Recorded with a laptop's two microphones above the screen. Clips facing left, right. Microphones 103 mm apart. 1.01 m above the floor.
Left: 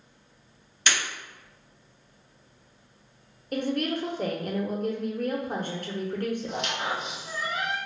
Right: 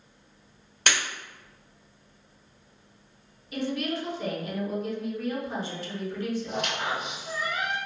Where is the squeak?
55° right (ahead or behind), 1.8 m.